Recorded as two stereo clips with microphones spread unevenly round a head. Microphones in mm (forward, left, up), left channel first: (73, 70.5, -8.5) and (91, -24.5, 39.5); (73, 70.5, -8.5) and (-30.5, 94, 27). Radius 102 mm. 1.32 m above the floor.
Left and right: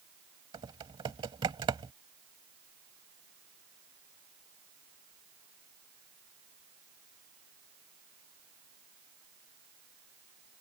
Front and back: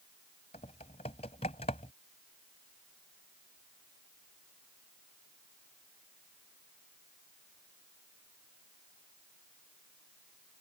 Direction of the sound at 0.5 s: 80° right.